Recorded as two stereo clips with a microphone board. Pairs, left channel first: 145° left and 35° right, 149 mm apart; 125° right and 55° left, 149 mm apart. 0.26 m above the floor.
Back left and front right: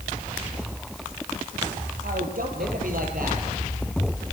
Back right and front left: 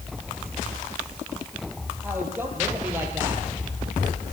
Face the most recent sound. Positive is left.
turn(degrees=-20)